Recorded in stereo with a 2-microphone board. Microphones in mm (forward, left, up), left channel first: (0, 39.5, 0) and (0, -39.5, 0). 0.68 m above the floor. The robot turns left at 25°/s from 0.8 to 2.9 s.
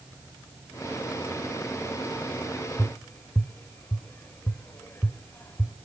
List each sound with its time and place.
2.8 s tapping: 30° left (ahead or behind), 0.9 m